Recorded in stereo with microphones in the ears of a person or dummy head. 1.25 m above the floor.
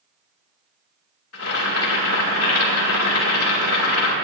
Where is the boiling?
80° left, 2.5 m.